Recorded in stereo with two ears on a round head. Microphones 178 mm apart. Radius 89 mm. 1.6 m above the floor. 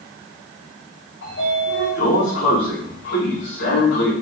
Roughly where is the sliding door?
Left.